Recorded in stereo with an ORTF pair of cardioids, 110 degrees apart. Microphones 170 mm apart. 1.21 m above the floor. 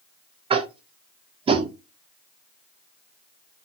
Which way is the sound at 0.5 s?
35° right.